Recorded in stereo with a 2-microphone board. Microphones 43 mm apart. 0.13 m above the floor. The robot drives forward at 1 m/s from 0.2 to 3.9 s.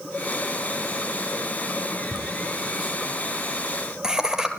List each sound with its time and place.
2.1 s laughter: 10° right (ahead or behind), 6 m; by 4.5 s 15° right (ahead or behind), 4 m